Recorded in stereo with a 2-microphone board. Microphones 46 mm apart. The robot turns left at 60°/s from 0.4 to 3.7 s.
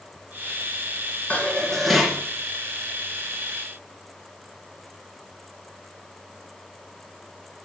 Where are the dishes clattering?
40° left, 1.8 m; by 2.2 s 15° right, 1.8 m.